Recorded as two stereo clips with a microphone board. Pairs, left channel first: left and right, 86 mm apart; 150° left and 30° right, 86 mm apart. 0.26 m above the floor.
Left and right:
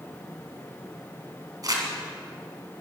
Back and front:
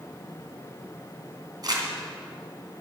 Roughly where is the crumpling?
Ahead right.